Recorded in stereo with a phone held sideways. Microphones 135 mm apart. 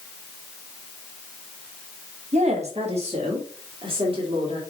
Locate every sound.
2.3 s a woman speaking: 55° right (ahead or behind), 1.6 m; by 4.6 s 40° right (ahead or behind), 3 m